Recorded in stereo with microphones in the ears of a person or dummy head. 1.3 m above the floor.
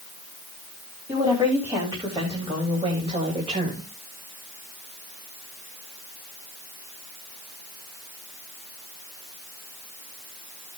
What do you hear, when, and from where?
1.1 s a woman speaking: 10° right (ahead or behind), 3.5 m; by 3.9 s 35° right (ahead or behind), 2.5 m